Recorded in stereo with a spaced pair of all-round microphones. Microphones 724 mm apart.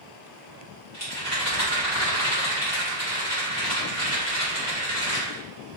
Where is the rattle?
20° left (ahead or behind), 1.9 m.